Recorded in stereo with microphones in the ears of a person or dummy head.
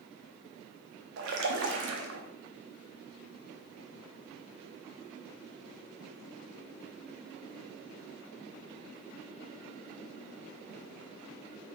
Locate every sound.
1.2 s a splash: 70° right (ahead or behind), 0.6 m